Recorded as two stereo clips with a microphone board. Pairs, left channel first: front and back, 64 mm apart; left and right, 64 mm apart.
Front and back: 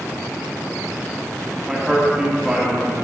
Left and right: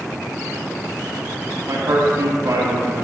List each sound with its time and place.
1.7 s a man speaking: 105° right, 1.6 m